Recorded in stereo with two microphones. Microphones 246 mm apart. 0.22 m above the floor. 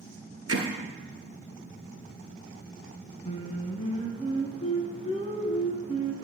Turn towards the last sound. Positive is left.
turn(degrees=25)  # may be behind; listen again after turning